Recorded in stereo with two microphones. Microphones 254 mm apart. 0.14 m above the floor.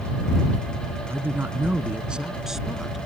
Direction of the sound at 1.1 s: 10° right (ahead or behind).